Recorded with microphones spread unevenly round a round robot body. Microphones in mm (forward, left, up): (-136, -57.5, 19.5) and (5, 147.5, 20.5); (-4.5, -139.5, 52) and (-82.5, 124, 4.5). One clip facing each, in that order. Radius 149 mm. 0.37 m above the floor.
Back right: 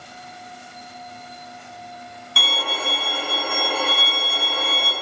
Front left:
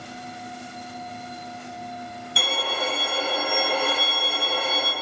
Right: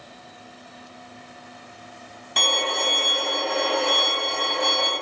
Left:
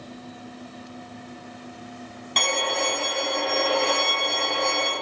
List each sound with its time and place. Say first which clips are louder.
2.4 s a violin: front left 1 dB, left 1 dB; 160° right, 0.8 m